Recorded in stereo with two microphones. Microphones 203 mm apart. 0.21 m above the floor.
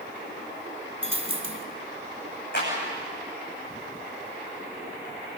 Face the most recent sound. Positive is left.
turn(degrees=55)  # may be behind; listen again after turning